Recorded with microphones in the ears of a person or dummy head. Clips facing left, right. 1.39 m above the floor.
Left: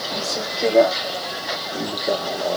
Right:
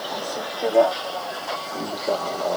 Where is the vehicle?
30° left (ahead or behind); by 2.6 s 10° left (ahead or behind).